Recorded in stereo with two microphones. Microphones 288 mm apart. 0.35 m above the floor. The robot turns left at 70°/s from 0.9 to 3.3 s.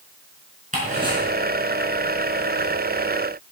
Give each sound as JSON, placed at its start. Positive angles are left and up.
{"t": 0.7, "sound": "ticking", "side_deg": -30, "distance_m": 4.0}